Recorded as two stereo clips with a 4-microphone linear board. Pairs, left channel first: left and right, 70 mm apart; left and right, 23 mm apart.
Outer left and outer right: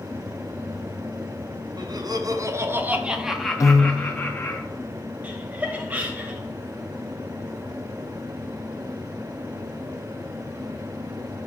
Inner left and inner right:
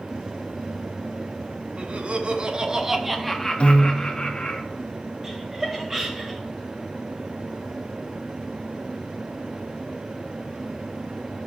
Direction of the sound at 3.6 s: 50° left (ahead or behind).